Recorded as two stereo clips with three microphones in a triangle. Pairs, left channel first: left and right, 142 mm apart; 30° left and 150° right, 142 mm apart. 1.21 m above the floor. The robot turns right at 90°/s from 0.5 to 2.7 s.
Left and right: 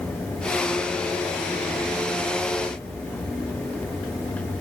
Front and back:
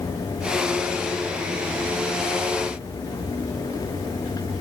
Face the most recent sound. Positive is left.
No sound to turn to.